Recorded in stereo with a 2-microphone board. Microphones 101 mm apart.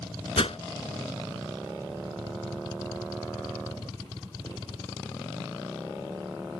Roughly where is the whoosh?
Left.